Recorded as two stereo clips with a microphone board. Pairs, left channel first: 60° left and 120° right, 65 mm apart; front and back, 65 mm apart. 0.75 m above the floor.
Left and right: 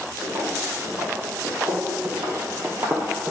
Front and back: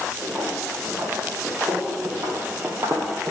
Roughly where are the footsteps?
Behind right.